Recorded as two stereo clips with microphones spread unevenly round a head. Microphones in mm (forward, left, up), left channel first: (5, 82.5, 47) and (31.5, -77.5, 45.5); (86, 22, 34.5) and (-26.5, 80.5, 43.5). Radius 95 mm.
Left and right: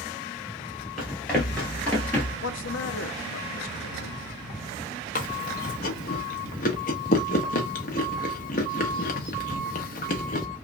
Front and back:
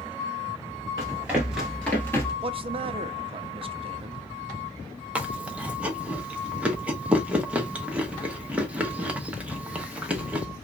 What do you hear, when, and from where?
1.0 s running footsteps: 175° right, 1.5 m; by 2.3 s 30° left, 1.5 m
2.4 s a man speaking: 105° left, 0.6 m
5.2 s chewing: 80° left, 0.8 m